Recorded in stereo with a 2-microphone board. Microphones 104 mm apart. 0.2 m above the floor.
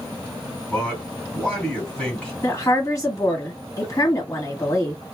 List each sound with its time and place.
0.7 s a man speaking: 10° left (ahead or behind), 1.8 m
2.4 s a woman speaking: 30° left (ahead or behind), 1.6 m